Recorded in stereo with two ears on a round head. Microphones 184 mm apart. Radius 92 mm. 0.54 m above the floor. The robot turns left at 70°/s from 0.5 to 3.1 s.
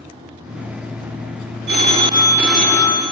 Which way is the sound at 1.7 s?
120° right.